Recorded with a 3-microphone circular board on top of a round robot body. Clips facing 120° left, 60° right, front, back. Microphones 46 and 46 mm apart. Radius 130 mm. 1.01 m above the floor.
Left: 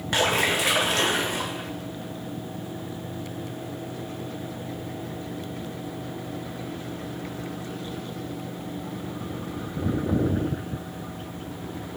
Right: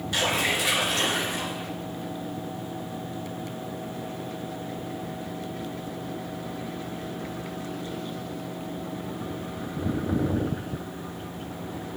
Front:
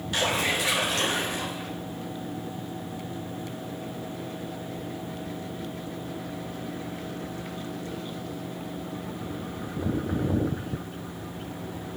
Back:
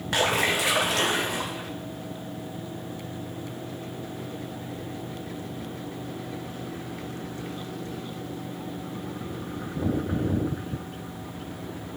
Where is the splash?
160° left, 1.6 m.